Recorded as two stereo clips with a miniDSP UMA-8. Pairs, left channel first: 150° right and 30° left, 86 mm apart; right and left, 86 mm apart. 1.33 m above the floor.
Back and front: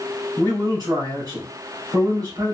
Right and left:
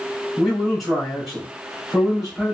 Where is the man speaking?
5° right, 2.0 m.